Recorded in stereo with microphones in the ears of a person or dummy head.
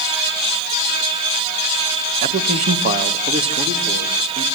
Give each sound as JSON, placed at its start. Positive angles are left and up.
{"t": 2.2, "sound": "a man speaking", "side_deg": -45, "distance_m": 1.7}